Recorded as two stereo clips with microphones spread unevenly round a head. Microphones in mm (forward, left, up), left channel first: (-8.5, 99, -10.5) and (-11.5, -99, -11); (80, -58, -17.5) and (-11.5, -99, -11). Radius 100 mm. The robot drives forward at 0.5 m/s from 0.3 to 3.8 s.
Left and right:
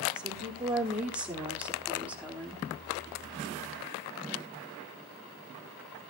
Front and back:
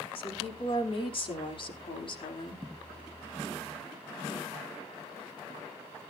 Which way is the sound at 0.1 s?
5° right.